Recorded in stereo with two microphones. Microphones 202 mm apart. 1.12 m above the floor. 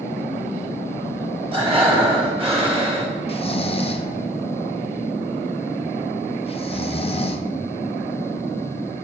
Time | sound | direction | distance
1.5 | breathing | 25° right (ahead or behind) | 1.8 m
3.3 | snoring | 30° left (ahead or behind) | 0.5 m